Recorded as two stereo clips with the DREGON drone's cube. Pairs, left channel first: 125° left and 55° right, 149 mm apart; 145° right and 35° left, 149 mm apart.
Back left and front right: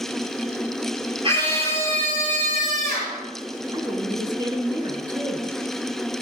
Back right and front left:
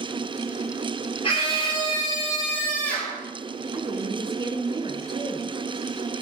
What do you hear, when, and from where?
1.2 s a scream: 105° right, 3 m; by 3.2 s 65° right, 3.5 m
3.7 s a woman speaking: 5° right, 1.4 m